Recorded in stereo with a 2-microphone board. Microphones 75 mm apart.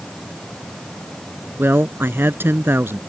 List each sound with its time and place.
1.6 s a woman speaking: 30° right (ahead or behind)